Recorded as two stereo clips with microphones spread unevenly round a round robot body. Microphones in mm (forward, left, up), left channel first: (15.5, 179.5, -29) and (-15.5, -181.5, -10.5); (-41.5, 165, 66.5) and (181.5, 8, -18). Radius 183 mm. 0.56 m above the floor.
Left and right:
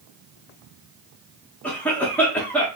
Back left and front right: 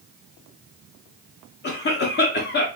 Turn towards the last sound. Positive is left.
turn(degrees=155)